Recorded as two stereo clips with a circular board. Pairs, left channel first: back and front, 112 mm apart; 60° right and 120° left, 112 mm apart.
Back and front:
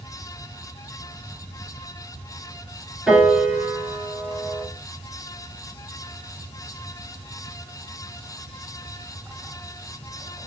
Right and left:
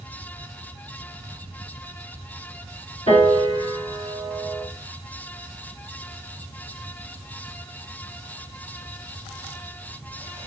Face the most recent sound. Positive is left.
turn(degrees=-80)